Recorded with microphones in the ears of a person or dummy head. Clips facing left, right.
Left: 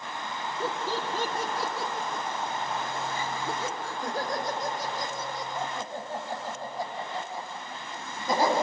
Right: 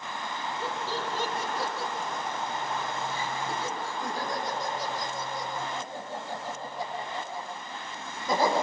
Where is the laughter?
80° left, 3 m; by 8.5 s 40° left (ahead or behind), 11.5 m.